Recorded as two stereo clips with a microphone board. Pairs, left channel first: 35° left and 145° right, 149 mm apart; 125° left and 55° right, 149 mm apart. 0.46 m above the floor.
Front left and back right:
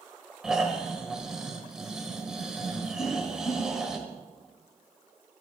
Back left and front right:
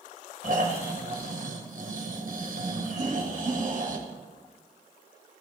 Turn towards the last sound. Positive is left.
turn(degrees=-5)